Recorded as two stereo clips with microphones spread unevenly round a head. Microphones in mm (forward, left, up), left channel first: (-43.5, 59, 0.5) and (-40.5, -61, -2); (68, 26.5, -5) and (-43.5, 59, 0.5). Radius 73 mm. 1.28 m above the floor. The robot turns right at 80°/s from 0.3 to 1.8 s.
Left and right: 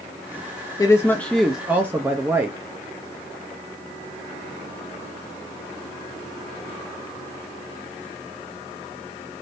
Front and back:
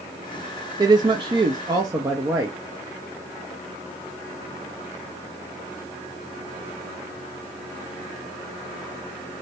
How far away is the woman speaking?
About 0.6 m.